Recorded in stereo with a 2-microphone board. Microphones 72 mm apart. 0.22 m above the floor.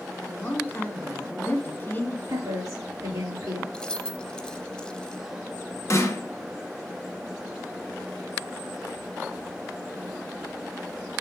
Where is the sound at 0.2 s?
25° left (ahead or behind), 1.6 m.